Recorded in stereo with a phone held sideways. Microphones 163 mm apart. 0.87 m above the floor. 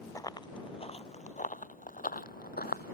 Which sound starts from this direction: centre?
Running footsteps, at 0.1 s.